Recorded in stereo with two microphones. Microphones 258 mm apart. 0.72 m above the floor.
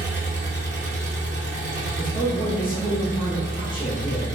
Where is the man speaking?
15° left (ahead or behind), 1.2 m.